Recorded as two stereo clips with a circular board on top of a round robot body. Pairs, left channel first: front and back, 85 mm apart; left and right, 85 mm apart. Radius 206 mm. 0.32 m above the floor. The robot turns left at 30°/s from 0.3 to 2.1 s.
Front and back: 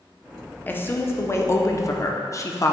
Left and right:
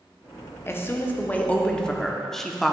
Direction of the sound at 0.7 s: 50° left.